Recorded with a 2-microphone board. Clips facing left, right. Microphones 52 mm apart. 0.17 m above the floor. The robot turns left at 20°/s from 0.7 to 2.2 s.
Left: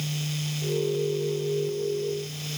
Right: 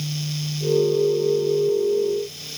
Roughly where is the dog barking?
I don't hear a dog barking.